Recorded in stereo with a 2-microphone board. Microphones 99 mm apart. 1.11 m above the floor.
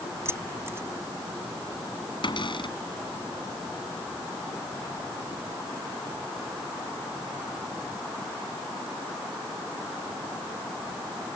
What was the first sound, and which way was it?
Keys jangling, 25° right (ahead or behind).